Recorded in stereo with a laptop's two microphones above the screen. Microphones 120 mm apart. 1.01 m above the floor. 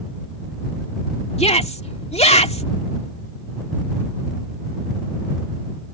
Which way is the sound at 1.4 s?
65° left (ahead or behind).